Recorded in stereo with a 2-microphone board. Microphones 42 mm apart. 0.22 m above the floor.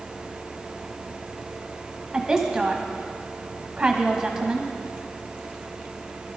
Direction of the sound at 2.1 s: 15° right (ahead or behind).